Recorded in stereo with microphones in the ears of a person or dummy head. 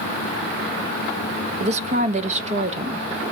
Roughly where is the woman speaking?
Right.